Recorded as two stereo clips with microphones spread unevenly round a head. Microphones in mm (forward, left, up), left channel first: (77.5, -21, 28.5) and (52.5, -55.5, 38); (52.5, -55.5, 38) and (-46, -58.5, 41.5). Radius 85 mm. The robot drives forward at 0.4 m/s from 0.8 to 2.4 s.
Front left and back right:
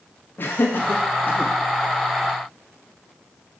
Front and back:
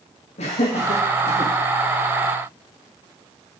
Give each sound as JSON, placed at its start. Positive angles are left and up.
{"t": 0.4, "sound": "laughter", "azimuth_deg": 15, "distance_m": 1.8}